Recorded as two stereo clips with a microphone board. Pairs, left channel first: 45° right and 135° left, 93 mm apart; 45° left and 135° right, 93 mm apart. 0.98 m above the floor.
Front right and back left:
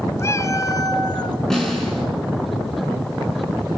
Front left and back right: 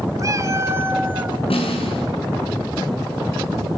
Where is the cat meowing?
95° right, 1.4 m; by 1.4 s 65° right, 1.5 m.